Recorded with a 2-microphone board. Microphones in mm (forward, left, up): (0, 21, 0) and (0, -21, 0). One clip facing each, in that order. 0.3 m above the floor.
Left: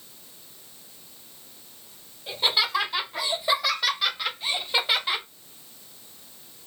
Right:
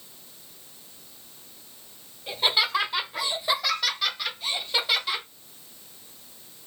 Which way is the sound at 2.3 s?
10° right (ahead or behind).